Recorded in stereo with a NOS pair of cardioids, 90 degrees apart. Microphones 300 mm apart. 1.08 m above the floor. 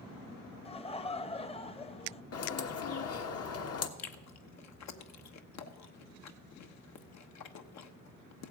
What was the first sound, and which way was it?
Laughter, 20° left.